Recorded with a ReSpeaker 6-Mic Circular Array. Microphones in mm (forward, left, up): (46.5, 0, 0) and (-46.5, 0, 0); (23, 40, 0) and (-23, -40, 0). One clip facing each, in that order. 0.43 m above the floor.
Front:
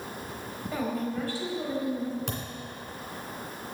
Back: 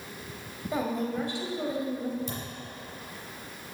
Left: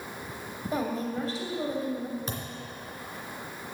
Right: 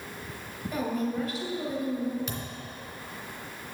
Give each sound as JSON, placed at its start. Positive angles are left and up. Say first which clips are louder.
{"t": 0.7, "sound": "a woman speaking", "louder": "back 1 dB, right 1 dB", "azimuth_deg": 115, "distance_m": 2.0}
{"t": 2.3, "sound": "a thud", "louder": "front 1 dB, even", "azimuth_deg": 10, "distance_m": 2.0}